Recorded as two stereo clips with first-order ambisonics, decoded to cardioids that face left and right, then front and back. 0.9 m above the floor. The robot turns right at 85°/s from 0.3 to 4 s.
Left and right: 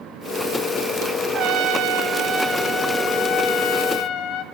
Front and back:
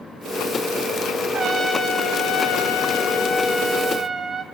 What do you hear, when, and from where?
1.3 s a trumpet: 135° right, 0.7 m; by 4.4 s 90° left, 0.7 m